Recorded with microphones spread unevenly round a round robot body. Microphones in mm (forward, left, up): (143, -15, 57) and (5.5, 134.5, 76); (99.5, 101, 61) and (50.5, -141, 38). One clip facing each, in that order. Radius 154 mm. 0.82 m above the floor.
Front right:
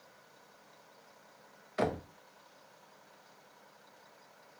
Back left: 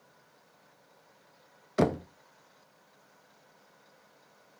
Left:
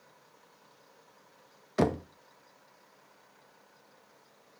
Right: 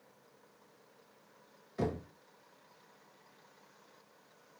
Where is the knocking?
90° left, 0.6 m.